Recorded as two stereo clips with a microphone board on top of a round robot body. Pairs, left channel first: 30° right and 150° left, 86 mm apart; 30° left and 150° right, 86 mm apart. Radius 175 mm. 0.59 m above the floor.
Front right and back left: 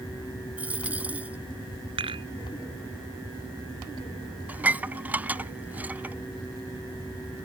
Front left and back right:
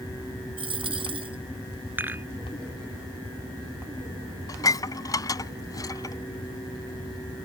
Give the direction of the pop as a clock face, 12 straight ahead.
I don't hear a pop.